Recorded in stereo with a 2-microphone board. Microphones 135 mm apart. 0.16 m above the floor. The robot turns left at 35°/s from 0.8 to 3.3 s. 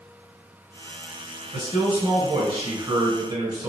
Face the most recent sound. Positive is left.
turn(degrees=-25)  # may be behind; listen again after turning